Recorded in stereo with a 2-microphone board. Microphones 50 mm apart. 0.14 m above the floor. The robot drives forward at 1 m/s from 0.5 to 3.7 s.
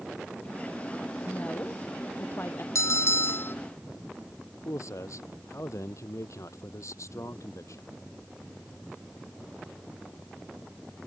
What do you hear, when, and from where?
1.2 s a woman speaking: 40° left (ahead or behind); by 2.6 s 50° left (ahead or behind)
2.8 s a bell: 65° left (ahead or behind); by 3.5 s 45° left (ahead or behind)
4.7 s a man speaking: 70° left (ahead or behind)